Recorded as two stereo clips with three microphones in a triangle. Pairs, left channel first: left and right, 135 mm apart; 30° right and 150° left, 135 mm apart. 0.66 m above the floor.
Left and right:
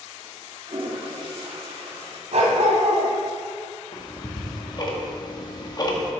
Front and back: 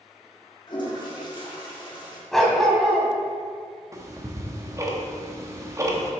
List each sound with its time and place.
0.7 s a toilet flushing: 70° right, 1.5 m
2.3 s a dog barking: 115° right, 1.6 m
3.9 s ticking: 110° left, 1.0 m